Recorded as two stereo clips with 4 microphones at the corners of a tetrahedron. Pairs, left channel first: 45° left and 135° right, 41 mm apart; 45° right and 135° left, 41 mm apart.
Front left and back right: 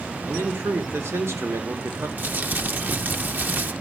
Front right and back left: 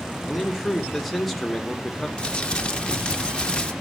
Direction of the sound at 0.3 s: 130° right.